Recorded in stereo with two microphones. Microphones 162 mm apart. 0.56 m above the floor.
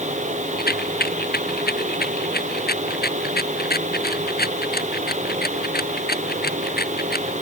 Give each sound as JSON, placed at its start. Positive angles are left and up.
{"t": 0.6, "sound": "a rattle", "side_deg": 80}